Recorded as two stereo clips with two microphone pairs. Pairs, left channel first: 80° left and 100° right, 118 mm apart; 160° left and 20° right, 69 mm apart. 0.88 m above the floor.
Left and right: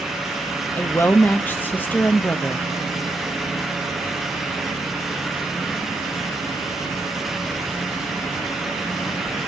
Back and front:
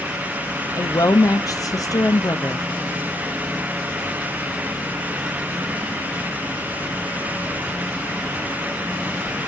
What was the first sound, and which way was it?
A woman speaking, 155° left.